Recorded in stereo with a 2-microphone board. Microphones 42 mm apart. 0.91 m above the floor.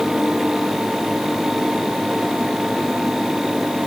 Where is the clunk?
No clunk in this recording.